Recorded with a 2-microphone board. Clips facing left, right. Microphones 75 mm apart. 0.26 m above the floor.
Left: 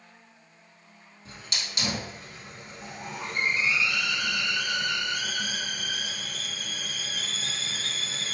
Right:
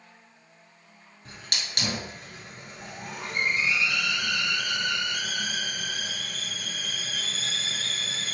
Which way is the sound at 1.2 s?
65° right (ahead or behind).